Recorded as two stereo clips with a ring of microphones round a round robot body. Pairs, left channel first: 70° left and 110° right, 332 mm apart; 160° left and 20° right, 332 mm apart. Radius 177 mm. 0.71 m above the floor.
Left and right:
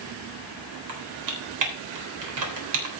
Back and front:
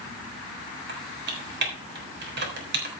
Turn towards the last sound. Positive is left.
turn(degrees=-80)